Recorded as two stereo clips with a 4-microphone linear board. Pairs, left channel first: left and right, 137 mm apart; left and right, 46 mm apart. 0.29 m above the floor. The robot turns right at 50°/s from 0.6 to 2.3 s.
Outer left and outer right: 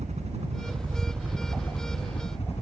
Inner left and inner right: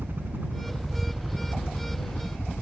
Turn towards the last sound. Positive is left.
turn(degrees=50)  # may be behind; listen again after turning